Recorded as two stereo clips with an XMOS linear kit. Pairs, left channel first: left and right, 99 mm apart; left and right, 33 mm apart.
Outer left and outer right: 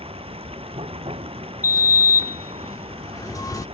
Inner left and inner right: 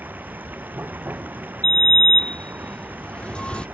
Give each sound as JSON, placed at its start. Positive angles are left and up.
{"t": 0.0, "sound": "running water", "side_deg": -75}
{"t": 1.6, "sound": "a sliding door", "side_deg": 35}